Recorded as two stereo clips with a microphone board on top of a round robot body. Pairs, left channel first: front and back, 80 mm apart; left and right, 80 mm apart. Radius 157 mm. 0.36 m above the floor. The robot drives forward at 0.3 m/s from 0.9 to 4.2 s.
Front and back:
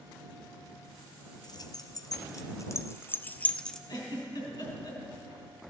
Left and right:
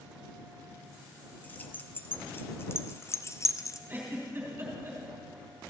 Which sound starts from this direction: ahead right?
A giggle, at 3.9 s.